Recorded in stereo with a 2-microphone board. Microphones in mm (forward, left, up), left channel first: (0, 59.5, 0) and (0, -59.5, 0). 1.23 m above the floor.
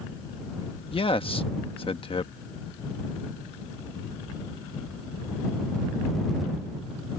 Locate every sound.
0.9 s a man speaking: 50° left (ahead or behind)